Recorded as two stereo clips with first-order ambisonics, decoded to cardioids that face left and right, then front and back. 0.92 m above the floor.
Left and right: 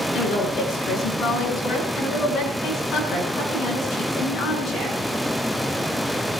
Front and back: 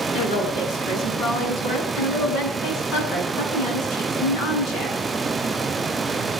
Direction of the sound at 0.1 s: 45° left.